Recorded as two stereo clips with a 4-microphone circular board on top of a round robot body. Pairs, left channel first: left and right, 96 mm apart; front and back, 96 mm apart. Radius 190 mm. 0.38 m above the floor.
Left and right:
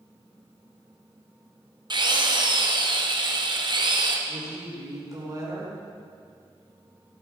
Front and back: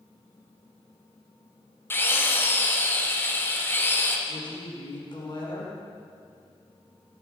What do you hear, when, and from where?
1.9 s a drill: 65° right, 2.0 m
4.3 s a woman speaking: 40° right, 5 m